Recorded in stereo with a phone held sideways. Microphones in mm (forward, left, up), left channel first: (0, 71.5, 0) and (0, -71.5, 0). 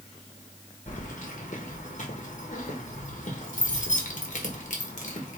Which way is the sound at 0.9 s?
60° left (ahead or behind).